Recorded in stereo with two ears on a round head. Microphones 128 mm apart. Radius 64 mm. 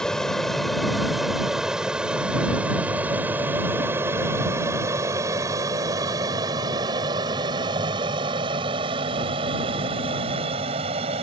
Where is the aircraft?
5° left (ahead or behind); by 11.2 s 45° right (ahead or behind).